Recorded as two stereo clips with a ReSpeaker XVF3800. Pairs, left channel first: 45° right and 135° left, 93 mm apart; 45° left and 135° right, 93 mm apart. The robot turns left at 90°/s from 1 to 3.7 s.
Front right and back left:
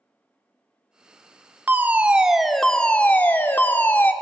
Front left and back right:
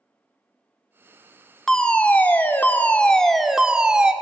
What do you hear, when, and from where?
1.7 s a fire alarm: 120° left, 0.6 m; by 4.1 s 65° right, 0.6 m